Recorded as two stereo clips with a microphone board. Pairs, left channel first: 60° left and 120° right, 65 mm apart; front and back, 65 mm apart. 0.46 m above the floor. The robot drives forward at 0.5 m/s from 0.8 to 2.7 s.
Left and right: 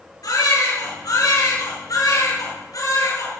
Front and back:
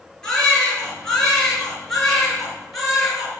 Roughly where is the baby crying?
Left.